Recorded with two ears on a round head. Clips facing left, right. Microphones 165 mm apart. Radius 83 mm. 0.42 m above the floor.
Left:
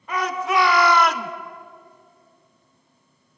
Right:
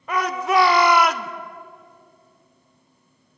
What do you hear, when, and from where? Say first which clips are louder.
0.1 s a shout: right 2 dB; 45° right (ahead or behind), 1.5 m; by 1.3 s 10° left (ahead or behind), 1.2 m